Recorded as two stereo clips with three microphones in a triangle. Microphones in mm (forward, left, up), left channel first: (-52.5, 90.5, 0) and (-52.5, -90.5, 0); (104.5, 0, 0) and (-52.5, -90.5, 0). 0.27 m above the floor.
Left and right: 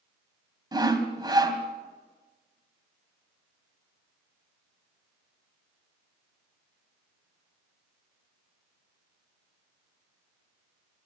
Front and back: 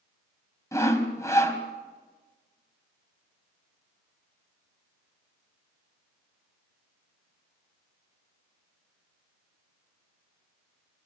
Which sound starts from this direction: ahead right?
Sawing, at 0.7 s.